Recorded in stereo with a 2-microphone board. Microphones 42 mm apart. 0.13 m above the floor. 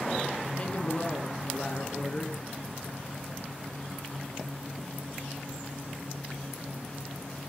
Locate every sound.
0.6 s a woman speaking: 35° left (ahead or behind), 1.3 m